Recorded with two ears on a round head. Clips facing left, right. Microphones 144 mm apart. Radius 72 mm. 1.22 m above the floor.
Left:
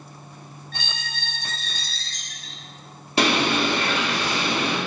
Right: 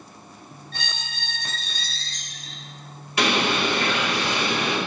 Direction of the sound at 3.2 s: 25° left (ahead or behind).